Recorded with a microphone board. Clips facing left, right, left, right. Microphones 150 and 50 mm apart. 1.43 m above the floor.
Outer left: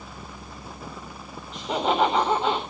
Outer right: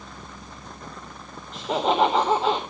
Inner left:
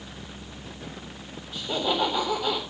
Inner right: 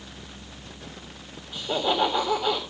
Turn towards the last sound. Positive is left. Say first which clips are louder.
# outer right 1 dB, inner right 2 dB
turn(degrees=0)  # may be behind; listen again after turning